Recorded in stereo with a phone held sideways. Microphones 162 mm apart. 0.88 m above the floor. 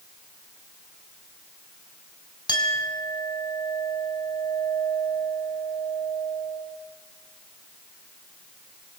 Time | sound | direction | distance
2.5 | a clink | 25° left (ahead or behind) | 4 m